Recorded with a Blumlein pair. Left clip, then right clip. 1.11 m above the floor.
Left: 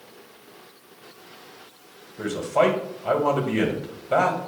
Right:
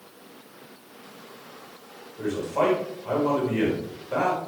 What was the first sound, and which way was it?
A man speaking, 70° left.